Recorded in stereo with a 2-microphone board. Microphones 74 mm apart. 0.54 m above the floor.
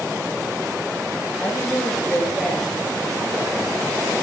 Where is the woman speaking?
10° left (ahead or behind), 8.5 m.